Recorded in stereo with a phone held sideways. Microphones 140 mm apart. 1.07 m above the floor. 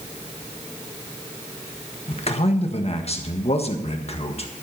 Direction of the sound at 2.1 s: 50° left (ahead or behind).